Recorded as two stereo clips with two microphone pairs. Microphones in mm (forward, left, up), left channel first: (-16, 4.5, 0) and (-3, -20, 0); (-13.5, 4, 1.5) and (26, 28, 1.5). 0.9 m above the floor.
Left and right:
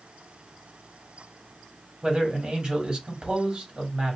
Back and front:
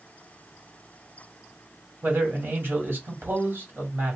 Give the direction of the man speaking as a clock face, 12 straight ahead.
12 o'clock.